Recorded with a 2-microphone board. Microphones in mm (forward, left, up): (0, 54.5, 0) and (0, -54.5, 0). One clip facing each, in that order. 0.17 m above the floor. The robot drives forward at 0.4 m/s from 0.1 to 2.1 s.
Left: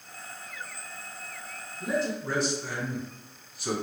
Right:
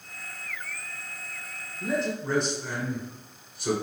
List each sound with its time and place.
1.8 s a man speaking: centre (ahead or behind), 1.1 m